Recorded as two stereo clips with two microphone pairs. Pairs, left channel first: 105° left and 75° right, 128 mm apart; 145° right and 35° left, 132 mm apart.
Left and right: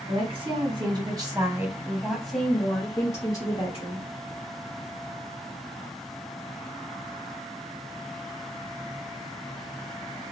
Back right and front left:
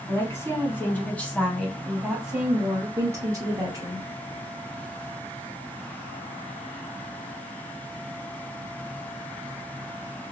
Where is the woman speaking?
85° right, 1.5 m; by 4.1 s 80° left, 1.4 m.